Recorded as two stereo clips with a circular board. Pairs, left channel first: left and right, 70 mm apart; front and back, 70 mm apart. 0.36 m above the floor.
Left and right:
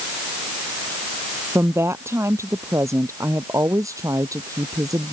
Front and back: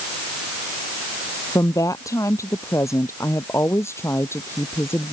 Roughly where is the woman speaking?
Ahead right.